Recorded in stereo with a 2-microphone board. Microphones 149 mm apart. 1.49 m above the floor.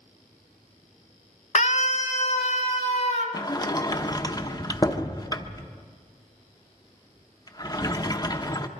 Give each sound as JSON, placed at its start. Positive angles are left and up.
{"t": 1.6, "sound": "a scream", "side_deg": 55, "distance_m": 1.5}
{"t": 3.3, "sound": "a sliding door", "side_deg": 30, "distance_m": 0.9}